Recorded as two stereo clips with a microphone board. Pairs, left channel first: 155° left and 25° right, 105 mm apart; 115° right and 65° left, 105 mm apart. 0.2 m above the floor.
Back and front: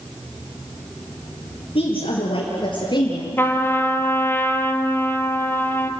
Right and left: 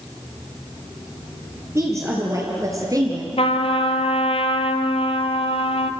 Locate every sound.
1.8 s a woman speaking: 130° left, 5 m; by 3.3 s 115° left, 3 m
3.4 s a trumpet: 135° right, 1.3 m